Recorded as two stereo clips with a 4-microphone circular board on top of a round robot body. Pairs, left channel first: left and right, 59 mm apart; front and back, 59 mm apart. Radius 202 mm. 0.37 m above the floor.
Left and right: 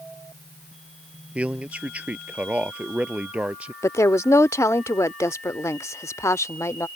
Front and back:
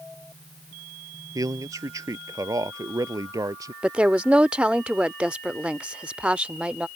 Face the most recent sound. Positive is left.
turn(degrees=110)